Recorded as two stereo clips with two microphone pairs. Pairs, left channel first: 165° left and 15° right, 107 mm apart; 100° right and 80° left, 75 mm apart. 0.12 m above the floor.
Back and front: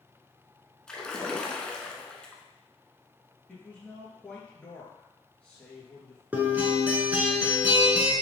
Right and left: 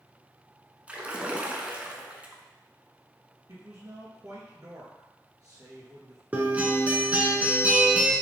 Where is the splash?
95° left, 0.6 m.